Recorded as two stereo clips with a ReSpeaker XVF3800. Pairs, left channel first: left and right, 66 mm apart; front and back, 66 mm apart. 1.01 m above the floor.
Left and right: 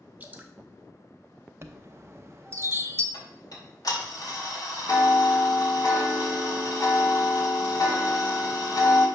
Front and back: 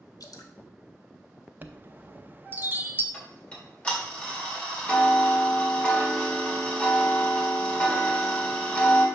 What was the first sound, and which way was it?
Dripping, 25° right.